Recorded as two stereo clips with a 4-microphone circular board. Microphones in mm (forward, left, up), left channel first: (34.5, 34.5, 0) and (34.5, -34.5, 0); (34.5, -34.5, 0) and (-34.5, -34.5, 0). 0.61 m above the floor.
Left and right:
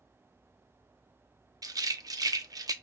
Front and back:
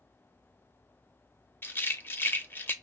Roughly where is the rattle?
Ahead right.